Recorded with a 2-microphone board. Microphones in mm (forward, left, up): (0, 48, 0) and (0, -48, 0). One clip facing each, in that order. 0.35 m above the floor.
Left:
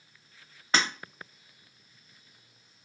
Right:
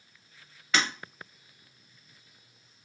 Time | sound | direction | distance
0.7 | breaking glass | 35° left (ahead or behind) | 0.8 m